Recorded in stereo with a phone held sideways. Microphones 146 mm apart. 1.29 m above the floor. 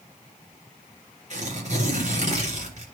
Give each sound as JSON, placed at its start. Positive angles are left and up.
{"t": 1.3, "sound": "tearing paper", "side_deg": -55, "distance_m": 3.0}